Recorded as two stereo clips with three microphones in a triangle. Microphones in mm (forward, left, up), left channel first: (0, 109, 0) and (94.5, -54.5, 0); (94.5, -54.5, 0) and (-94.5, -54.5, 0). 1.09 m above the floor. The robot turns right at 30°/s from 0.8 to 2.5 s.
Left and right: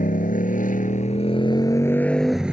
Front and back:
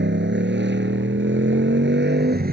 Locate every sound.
0.0 s a motorcycle: 165° left; by 2.5 s 145° right